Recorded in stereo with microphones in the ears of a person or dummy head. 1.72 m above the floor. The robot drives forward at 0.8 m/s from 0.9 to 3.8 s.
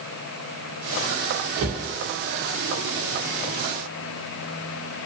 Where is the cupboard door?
45° right (ahead or behind), 1.4 m.